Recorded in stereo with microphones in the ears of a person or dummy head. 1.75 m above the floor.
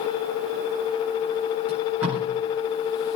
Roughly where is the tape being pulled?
Centre.